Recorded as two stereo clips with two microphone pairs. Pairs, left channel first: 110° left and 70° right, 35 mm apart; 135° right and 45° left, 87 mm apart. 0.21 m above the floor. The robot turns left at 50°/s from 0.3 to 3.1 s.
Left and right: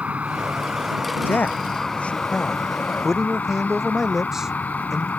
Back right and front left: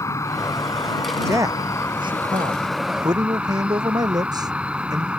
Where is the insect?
100° right; by 5.2 s 120° left.